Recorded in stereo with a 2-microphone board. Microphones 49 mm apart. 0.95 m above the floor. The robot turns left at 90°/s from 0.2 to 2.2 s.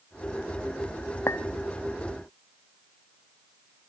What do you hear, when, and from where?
1.3 s a clink: 60° left (ahead or behind), 0.6 m; by 1.4 s 75° left (ahead or behind), 0.6 m